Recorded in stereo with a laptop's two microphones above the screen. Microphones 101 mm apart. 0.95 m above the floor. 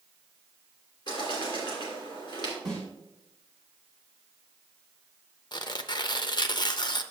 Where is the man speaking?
No man speaking in this recording.